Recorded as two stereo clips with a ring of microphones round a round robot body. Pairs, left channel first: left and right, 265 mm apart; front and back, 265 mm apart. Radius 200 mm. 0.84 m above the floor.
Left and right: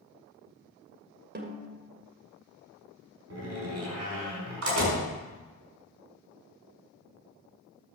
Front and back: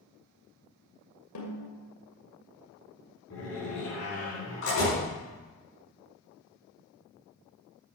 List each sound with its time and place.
1.4 s a snare drum: 40° right, 2 m
3.3 s a door slam: 60° right, 5.5 m